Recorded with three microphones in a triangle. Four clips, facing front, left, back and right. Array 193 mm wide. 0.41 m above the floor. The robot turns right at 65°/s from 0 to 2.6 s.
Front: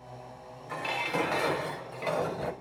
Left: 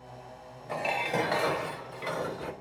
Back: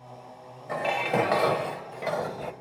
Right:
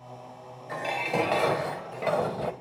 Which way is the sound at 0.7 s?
160° left.